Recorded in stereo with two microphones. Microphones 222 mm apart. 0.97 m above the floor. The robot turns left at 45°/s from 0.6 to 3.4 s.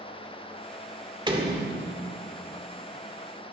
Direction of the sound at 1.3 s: 20° right.